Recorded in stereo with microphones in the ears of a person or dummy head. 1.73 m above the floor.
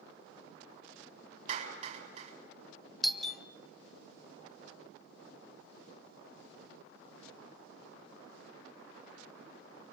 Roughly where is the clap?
Right.